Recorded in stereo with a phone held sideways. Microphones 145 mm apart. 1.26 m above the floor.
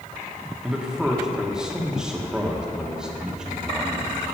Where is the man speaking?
5° right (ahead or behind), 1.3 m.